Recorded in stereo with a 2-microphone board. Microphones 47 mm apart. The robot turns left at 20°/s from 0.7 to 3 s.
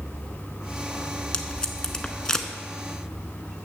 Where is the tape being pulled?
20° left (ahead or behind), 0.8 m; by 2.5 s 15° left (ahead or behind), 0.8 m.